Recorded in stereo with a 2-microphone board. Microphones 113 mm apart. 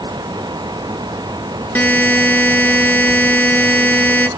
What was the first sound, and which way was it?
A buzzer, 15° left (ahead or behind).